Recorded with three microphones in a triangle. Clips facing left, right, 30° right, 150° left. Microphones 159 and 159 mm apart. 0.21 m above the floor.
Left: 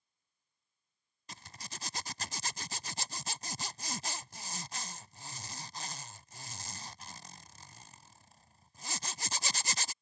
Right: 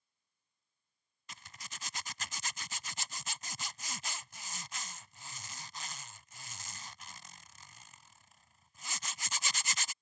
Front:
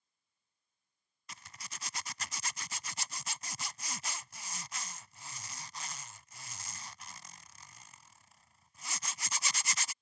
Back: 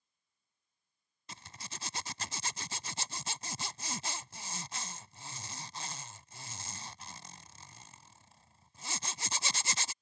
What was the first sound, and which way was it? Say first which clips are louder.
A zipper: left 3 dB, back 3 dB; 110° left.